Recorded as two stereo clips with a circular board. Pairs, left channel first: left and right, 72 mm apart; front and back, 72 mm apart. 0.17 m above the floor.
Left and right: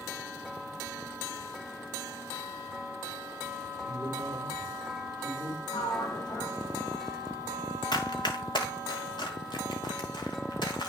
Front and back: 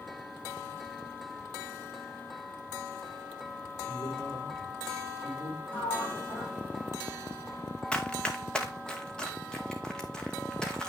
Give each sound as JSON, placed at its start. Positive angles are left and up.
{"t": 3.9, "sound": "a man speaking", "azimuth_deg": 20, "distance_m": 3.5}
{"t": 5.7, "sound": "a sliding door", "azimuth_deg": 65, "distance_m": 6.5}
{"t": 7.9, "sound": "running footsteps", "azimuth_deg": 75, "distance_m": 1.3}